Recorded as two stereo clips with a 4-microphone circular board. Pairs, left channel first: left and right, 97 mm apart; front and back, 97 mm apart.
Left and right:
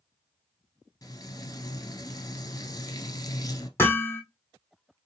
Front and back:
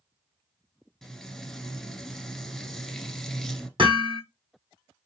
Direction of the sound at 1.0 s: 85° left.